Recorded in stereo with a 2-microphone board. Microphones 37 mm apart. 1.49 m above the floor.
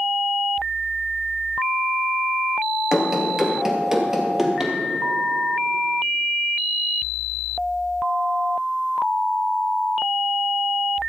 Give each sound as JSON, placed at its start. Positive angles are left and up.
{"t": 2.9, "sound": "running footsteps", "side_deg": -20, "distance_m": 1.8}